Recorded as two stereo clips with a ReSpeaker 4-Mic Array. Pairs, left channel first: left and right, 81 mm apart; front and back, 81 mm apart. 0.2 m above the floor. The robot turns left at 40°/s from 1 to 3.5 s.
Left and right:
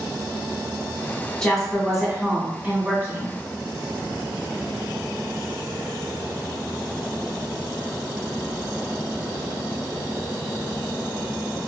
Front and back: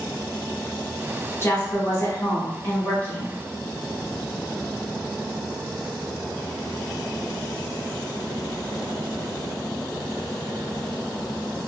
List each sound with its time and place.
1.4 s a woman speaking: 15° left, 1.4 m; by 3.4 s 65° right, 1.4 m